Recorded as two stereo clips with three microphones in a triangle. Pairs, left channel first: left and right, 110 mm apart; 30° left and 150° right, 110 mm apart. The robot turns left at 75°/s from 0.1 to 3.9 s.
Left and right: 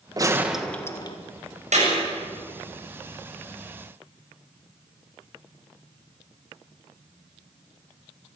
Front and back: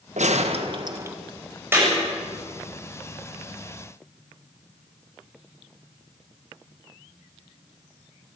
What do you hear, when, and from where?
0.2 s a gunshot: 145° right, 1.5 m; by 1.2 s 140° left, 1.5 m
1.7 s a clap: 80° right, 8 m; by 1.9 s 95° right, 8 m